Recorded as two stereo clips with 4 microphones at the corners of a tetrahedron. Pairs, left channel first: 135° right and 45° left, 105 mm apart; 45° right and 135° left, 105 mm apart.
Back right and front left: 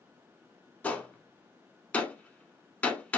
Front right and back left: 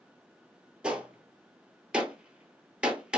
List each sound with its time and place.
0.8 s a gunshot: 170° right, 0.7 m